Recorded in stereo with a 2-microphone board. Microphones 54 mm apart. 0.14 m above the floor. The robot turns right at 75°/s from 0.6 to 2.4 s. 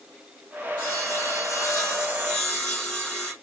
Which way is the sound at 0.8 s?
45° left.